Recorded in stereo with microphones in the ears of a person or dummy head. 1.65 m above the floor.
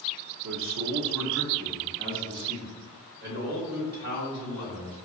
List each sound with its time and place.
0.4 s a man speaking: 60° right (ahead or behind), 0.7 m; by 5.1 s 50° right (ahead or behind), 3 m